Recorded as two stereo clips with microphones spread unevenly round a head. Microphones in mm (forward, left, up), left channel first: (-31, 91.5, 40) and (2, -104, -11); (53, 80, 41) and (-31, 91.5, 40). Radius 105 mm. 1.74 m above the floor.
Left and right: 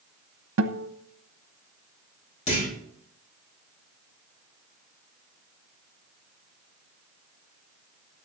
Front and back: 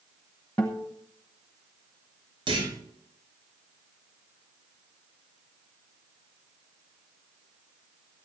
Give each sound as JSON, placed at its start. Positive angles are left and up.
{"t": 0.6, "sound": "a guitar", "azimuth_deg": -85, "distance_m": 1.0}
{"t": 2.5, "sound": "a clunk", "azimuth_deg": 160, "distance_m": 6.0}